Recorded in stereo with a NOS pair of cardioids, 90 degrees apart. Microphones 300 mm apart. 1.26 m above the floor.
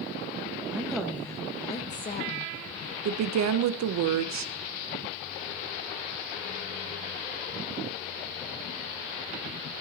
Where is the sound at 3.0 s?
65° right, 0.8 m.